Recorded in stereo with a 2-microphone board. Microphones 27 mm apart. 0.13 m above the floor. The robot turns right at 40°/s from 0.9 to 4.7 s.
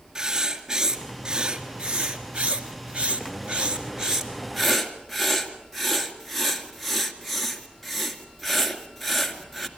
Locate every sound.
0.1 s writing: 150° right, 2 m; by 9.7 s straight ahead, 2 m